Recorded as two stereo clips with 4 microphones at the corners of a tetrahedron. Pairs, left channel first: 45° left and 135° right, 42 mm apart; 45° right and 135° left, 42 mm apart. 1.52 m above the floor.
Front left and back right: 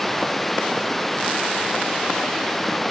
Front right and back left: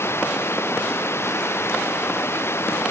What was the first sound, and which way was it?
Running water, 40° right.